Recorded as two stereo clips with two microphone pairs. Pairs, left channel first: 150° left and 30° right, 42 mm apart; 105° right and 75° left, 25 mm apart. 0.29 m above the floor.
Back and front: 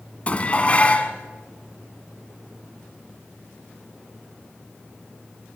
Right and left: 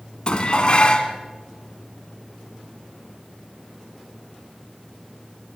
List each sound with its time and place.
0.3 s dishes clattering: 150° right, 1.5 m